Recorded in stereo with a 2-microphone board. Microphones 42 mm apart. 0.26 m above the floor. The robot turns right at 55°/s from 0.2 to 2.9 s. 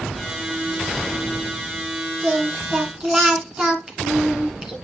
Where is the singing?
60° right, 2.5 m; by 4.8 s 25° right, 2.5 m.